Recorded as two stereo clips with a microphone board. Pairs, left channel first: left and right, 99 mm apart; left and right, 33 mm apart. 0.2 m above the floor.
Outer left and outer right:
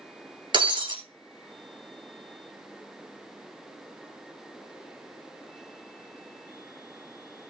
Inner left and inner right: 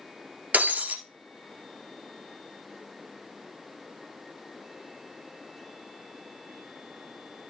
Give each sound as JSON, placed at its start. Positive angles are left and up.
{"t": 0.5, "sound": "breaking glass", "side_deg": -50, "distance_m": 2.0}